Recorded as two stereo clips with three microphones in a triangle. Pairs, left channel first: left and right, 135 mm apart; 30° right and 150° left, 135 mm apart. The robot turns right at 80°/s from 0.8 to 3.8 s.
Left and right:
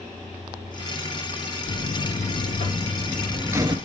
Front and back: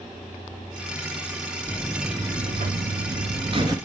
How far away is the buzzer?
About 0.7 m.